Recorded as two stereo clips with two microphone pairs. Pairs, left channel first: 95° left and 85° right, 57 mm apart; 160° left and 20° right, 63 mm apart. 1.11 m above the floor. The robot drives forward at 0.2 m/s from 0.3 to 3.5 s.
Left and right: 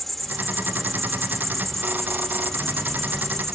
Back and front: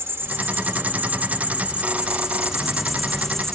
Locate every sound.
0.0 s an insect: 10° left, 0.9 m; by 3.5 s 140° left, 0.7 m